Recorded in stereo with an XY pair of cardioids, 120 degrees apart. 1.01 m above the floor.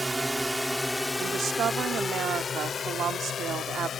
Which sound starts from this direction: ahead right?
A woman speaking, at 1.2 s.